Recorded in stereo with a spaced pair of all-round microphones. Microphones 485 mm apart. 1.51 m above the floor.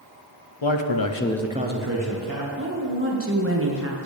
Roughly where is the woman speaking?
Right.